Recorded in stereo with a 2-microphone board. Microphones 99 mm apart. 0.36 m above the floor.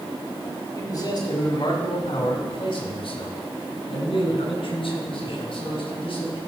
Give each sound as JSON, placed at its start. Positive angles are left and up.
{"t": 0.8, "sound": "a man speaking", "side_deg": 30, "distance_m": 1.6}